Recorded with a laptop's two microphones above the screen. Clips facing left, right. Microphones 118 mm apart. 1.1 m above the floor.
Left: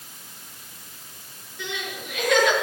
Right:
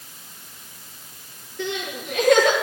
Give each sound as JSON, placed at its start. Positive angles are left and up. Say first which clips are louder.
{"t": 1.6, "sound": "crying", "louder": "right 5 dB", "side_deg": -45, "distance_m": 6.0}